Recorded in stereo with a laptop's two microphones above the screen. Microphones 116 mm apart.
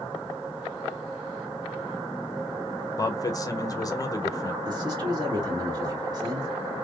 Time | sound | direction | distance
3.0 | a man speaking | 30° left (ahead or behind) | 0.6 m
4.7 | a man speaking | 40° right (ahead or behind) | 2.5 m